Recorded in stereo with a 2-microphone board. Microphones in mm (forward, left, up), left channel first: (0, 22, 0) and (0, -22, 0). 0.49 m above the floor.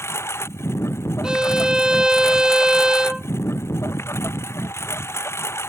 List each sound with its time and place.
0.0 s a lawn mower: 90° left
1.2 s a violin: 20° right (ahead or behind)